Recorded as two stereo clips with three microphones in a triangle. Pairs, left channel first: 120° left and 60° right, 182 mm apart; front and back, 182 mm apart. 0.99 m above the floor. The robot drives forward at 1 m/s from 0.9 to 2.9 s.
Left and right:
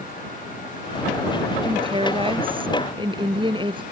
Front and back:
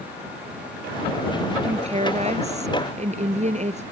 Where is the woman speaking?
120° right; by 3.8 s 125° right.